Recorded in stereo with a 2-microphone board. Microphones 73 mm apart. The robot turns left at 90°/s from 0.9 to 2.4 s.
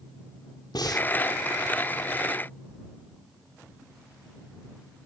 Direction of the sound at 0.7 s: 70° left (ahead or behind).